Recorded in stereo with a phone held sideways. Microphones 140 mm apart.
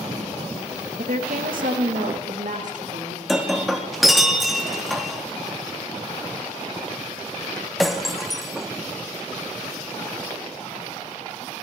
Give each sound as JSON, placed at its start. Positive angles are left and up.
{"t": 1.0, "sound": "a woman speaking", "side_deg": -70, "distance_m": 1.7}
{"t": 3.3, "sound": "breaking glass", "side_deg": 0, "distance_m": 1.4}